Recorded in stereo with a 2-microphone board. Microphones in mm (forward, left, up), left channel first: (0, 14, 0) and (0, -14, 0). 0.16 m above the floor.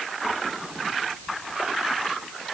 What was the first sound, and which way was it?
Only background noise.